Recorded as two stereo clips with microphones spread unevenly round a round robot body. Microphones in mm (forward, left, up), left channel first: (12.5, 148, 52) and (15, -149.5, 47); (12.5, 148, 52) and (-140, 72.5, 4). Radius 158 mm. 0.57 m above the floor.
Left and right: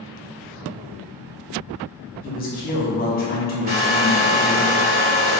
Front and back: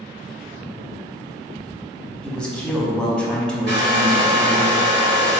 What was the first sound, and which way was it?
A man speaking, 130° left.